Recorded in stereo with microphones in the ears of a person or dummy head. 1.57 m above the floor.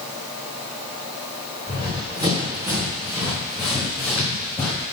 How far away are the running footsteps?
About 3 m.